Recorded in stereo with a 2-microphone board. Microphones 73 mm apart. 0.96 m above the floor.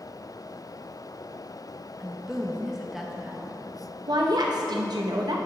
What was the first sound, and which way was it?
A woman speaking, 5° right (ahead or behind).